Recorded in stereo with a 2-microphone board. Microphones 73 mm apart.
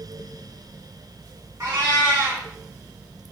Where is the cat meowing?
45° right (ahead or behind), 2.5 m.